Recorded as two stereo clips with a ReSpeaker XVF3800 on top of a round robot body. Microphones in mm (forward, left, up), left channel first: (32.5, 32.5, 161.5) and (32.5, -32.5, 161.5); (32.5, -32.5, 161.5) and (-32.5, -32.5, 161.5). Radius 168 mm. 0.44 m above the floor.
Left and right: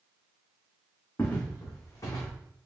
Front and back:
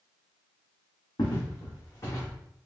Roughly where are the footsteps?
Ahead left.